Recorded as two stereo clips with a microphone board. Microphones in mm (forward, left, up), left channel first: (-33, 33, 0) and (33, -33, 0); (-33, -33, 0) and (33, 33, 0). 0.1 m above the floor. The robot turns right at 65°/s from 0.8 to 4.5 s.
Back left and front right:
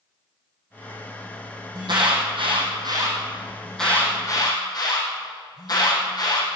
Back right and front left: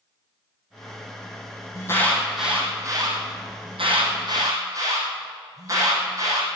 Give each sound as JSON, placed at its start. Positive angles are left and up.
{"t": 1.8, "sound": "an alarm", "azimuth_deg": -80, "distance_m": 4.0}